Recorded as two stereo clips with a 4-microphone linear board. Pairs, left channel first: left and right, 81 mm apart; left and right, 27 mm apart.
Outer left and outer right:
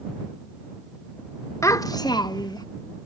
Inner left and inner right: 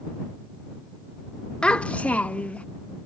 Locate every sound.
1.6 s a child speaking: 40° left (ahead or behind); by 2.6 s 55° left (ahead or behind)